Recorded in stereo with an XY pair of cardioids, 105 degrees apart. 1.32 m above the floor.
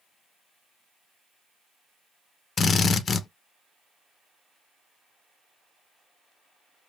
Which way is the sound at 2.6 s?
45° left.